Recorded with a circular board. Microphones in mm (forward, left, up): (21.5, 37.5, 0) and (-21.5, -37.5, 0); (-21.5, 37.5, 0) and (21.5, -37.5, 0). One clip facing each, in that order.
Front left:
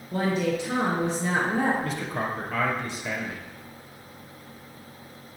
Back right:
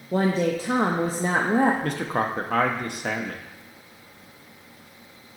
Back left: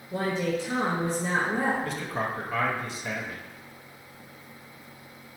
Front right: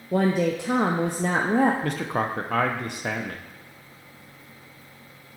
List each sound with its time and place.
0.1 s a woman speaking: 70° right, 0.6 m
1.8 s a man speaking: 85° right, 0.7 m